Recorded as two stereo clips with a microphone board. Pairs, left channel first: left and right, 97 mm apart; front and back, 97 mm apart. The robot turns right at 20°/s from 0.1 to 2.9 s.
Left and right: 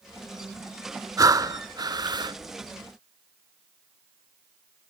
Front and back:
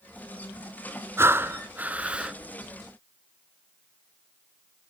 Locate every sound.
1.2 s breathing: 125° right, 0.7 m; by 2.4 s 100° right, 0.7 m